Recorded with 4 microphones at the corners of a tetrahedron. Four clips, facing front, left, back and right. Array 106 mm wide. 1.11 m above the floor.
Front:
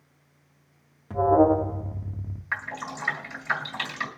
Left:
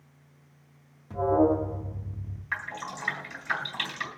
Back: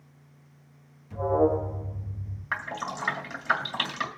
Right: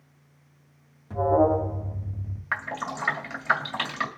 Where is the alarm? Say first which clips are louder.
Right 2 dB, front 5 dB; straight ahead, 2 m.